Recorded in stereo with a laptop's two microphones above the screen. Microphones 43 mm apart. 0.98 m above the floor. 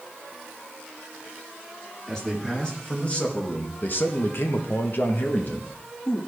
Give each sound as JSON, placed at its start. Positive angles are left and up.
{"t": 2.1, "sound": "a man speaking", "side_deg": 10, "distance_m": 1.3}